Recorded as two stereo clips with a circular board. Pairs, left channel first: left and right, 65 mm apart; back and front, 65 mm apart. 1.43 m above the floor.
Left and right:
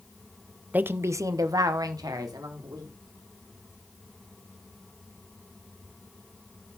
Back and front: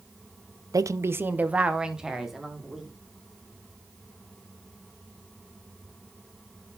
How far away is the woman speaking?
About 0.5 m.